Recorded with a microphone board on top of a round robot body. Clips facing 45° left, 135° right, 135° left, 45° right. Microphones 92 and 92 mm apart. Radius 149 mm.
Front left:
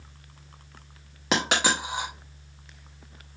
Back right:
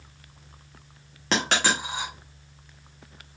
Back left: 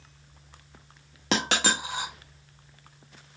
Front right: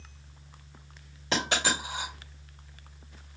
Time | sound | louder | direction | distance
1.3 | a dropped coin | even, back left 2 dB | 125° left | 0.7 m